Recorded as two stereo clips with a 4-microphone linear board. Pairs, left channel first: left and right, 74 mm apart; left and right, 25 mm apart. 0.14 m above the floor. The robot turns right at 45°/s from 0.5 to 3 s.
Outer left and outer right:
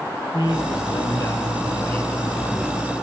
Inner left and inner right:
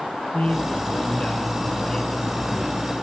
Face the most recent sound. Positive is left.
turn(degrees=-160)